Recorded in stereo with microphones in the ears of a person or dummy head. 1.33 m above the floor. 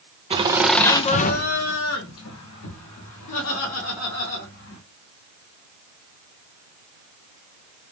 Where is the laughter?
25° right (ahead or behind), 0.6 m; by 4.8 s 80° left, 2.5 m.